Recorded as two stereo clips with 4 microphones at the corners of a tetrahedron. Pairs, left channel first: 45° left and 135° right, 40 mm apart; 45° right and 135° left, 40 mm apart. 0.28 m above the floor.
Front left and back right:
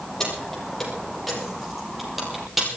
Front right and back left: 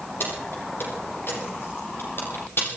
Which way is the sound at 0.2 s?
35° right.